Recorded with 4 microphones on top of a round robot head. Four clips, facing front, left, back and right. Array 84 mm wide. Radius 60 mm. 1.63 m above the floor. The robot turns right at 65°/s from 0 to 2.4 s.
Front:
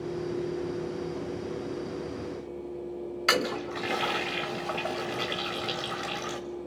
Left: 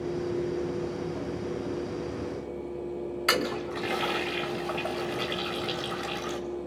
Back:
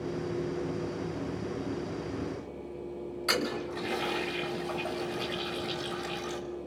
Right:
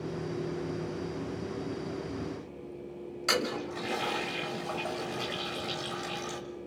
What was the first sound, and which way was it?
A toilet flushing, 30° left.